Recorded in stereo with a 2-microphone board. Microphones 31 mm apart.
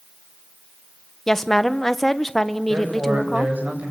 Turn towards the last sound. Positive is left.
turn(degrees=-70)  # may be behind; listen again after turning